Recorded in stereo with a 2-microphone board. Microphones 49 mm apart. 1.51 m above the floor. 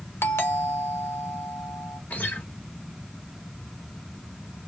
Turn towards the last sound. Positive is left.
turn(degrees=30)  # may be behind; listen again after turning